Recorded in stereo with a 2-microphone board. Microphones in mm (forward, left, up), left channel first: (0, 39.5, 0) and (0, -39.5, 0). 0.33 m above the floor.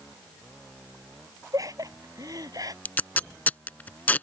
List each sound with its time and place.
1.5 s laughter: 45° right (ahead or behind); by 2.8 s 50° right (ahead or behind)
2.9 s tape being pulled: 25° left (ahead or behind)